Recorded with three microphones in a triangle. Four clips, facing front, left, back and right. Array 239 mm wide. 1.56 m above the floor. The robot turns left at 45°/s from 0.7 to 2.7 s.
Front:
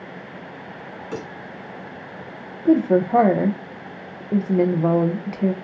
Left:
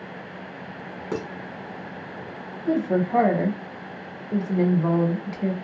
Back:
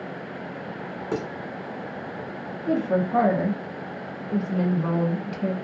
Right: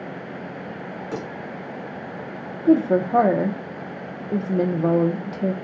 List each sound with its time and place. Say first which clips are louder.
1.1 s dishes clattering: left 2 dB, back 3 dB; 140° left, 0.8 m; by 1.3 s 135° left, 0.8 m
2.6 s a woman speaking: right 5 dB, front 7 dB; 40° right, 0.6 m; by 5.5 s 45° right, 0.6 m